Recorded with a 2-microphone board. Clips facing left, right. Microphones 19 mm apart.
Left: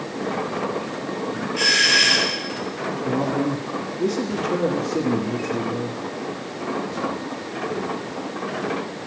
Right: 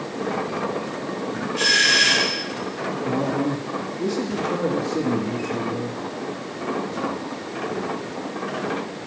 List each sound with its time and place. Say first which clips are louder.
1.6 s a doorbell: even; 20° left (ahead or behind), 3.5 m
3.0 s a man speaking: left 1 dB; 50° left (ahead or behind), 2.5 m